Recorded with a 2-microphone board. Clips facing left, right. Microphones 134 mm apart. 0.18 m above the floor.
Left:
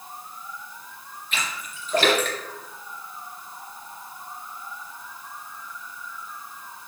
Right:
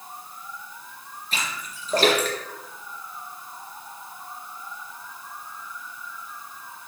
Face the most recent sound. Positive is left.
turn(degrees=-35)  # may be behind; listen again after turning